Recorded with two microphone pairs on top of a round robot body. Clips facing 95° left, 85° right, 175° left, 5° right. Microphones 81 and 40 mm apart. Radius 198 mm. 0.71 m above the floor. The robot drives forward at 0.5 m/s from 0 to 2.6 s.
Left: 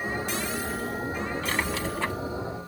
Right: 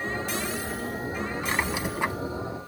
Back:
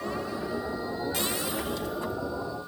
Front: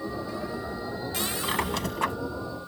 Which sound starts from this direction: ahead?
A squeak, at 1.4 s.